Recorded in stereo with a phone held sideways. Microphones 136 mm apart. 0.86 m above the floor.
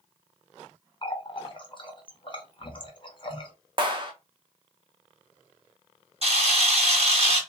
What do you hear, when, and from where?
1.0 s a running tap: 40° left (ahead or behind), 0.6 m
3.8 s a clap: 35° right (ahead or behind), 0.6 m
6.2 s a camera shutter: 50° right (ahead or behind), 1.3 m